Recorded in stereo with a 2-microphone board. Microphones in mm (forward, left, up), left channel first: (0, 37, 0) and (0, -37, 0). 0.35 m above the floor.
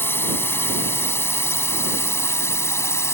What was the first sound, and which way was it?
A drone, 35° left (ahead or behind).